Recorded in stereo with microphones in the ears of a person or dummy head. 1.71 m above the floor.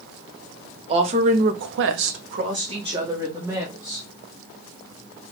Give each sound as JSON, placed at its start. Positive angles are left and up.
{"t": 0.9, "sound": "a woman speaking", "side_deg": -35, "distance_m": 1.2}